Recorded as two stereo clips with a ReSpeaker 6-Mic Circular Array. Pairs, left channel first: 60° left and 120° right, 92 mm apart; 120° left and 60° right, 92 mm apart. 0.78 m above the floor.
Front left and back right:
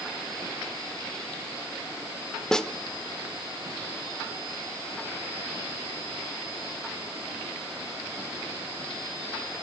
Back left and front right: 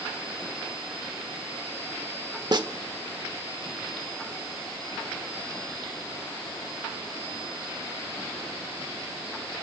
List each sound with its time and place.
2.5 s a snare drum: 25° right, 1.1 m